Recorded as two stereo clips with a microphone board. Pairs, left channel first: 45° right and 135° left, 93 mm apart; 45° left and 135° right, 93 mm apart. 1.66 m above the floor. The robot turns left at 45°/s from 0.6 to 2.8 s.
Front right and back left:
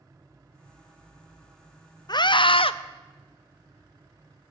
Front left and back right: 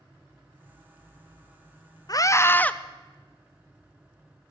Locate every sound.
2.1 s a scream: straight ahead, 0.6 m; by 2.7 s 30° right, 0.6 m